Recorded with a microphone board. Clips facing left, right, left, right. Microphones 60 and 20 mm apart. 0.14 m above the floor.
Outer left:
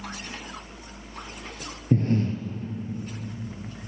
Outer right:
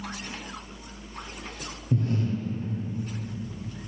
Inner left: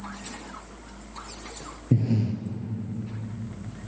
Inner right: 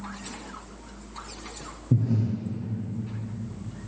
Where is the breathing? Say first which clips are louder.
Outer left 4 dB, inner left 1 dB; 45° left (ahead or behind), 1.0 m.